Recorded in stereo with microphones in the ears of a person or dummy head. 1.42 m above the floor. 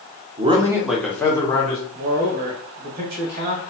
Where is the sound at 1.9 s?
50° right (ahead or behind), 1.1 m.